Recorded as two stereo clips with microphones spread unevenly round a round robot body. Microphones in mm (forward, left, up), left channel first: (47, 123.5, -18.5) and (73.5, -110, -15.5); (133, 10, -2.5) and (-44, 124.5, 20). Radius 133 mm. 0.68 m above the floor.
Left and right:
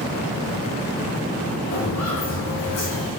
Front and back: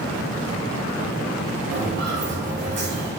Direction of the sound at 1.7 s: 115° left.